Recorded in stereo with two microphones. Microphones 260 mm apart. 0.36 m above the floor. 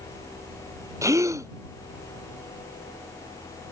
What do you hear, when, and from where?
1.0 s a gasp: 10° right (ahead or behind)